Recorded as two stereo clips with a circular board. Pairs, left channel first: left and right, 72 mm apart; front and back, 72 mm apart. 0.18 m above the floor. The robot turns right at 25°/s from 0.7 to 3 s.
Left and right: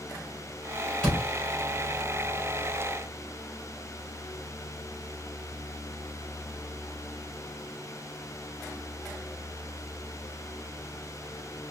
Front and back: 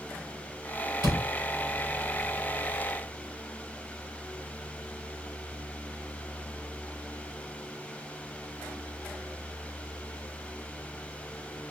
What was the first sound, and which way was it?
A door slam, 10° left.